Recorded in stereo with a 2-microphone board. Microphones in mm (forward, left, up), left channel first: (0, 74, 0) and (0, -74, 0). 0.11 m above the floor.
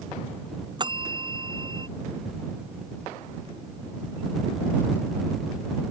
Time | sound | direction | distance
0.8 | a bell | 30° right (ahead or behind) | ?